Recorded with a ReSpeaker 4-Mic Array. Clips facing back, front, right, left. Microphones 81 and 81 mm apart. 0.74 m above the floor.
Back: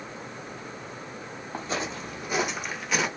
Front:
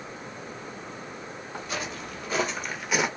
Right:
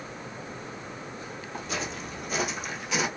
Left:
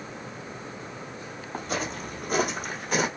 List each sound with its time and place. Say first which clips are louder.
1.5 s footsteps: back 3 dB, left 3 dB; 130° left, 1.4 m; by 3.1 s 75° left, 1.0 m